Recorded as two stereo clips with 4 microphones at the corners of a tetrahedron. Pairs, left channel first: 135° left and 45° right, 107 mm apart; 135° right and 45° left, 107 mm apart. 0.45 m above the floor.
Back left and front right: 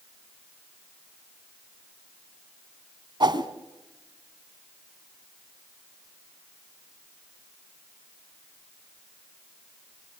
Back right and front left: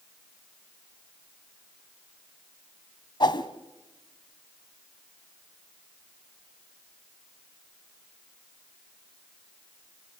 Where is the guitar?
I don't hear a guitar.